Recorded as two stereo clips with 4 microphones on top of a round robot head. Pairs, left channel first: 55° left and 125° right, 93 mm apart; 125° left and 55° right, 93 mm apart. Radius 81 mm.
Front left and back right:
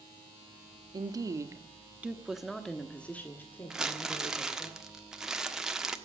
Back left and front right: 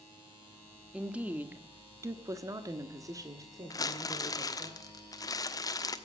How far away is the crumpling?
About 1.3 m.